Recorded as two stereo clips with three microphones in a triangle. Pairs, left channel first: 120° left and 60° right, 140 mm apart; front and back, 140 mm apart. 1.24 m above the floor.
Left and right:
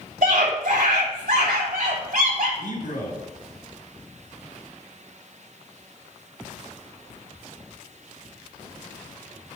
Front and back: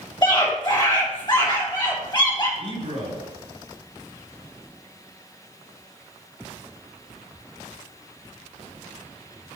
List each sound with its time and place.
0.2 s a scream: 60° right, 4 m
2.6 s a man speaking: 130° left, 4 m